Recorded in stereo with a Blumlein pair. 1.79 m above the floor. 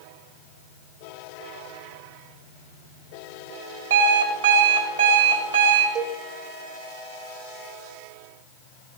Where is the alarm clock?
65° right, 2.5 m.